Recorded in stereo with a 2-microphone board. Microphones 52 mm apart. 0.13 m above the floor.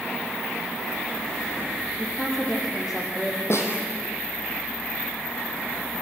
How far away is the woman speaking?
About 4 m.